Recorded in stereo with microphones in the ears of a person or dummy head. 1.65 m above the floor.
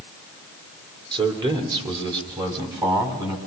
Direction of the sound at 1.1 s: 25° right (ahead or behind).